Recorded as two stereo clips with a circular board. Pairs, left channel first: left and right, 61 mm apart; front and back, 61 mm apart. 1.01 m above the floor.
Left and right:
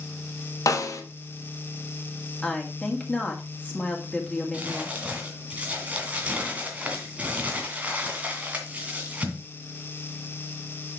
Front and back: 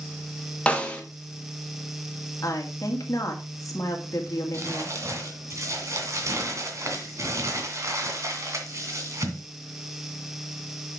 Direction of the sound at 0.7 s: 70° left.